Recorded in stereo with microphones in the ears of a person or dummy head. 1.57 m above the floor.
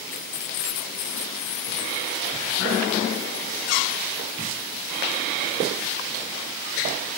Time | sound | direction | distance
0.1 | keys jangling | 45° left (ahead or behind) | 1.0 m